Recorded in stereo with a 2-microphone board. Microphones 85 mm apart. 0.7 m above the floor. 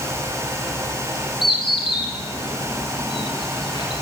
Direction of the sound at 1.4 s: 70° left (ahead or behind).